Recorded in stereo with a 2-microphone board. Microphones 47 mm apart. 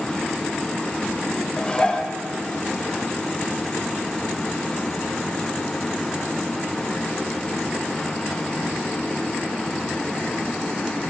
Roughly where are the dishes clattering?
Left.